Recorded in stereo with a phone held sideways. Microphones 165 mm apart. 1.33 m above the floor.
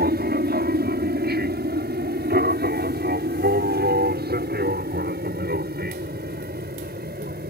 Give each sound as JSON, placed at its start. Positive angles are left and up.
{"t": 0.0, "sound": "an aircraft", "side_deg": -70}